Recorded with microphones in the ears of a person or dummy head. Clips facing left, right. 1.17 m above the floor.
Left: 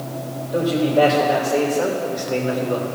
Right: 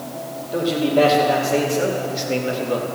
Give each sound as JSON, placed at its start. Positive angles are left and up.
{"t": 0.5, "sound": "a man speaking", "side_deg": -25, "distance_m": 3.0}